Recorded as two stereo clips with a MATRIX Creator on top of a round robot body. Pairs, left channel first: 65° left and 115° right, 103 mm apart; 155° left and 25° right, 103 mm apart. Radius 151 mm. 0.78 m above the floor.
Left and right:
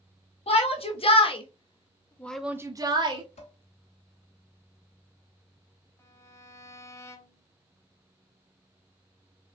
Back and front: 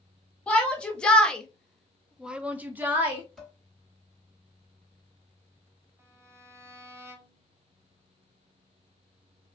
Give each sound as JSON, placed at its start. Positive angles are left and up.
{"t": 0.5, "sound": "a shout", "azimuth_deg": 80, "distance_m": 1.8}
{"t": 3.4, "sound": "dishes clattering", "azimuth_deg": 70, "distance_m": 2.5}
{"t": 6.0, "sound": "a violin", "azimuth_deg": 25, "distance_m": 1.1}